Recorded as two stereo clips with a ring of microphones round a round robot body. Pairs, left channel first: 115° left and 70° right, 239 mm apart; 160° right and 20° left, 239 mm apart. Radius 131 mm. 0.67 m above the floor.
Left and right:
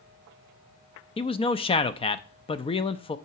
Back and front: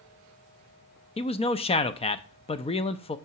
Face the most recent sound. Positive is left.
turn(degrees=160)